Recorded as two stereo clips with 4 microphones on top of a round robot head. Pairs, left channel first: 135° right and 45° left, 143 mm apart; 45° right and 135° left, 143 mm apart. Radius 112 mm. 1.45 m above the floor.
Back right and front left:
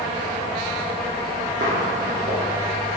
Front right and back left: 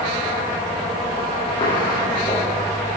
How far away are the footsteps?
About 4 m.